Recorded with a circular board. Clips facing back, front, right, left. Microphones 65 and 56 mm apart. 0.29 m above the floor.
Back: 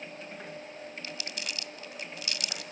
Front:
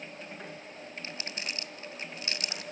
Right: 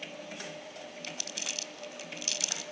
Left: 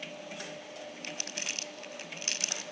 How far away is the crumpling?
About 0.7 m.